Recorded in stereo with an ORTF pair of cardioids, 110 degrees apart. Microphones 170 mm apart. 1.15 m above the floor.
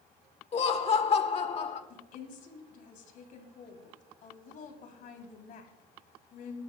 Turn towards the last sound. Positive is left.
turn(degrees=60)